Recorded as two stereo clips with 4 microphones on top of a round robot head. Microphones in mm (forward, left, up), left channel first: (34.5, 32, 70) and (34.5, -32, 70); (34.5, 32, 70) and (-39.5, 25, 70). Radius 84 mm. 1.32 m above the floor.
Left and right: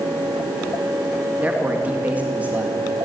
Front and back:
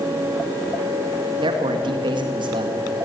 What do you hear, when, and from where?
1.4 s a man speaking: 160° right, 2.5 m